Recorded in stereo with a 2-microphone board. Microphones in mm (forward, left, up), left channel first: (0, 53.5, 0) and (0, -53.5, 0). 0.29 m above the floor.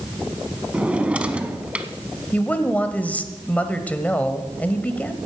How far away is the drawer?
About 0.9 m.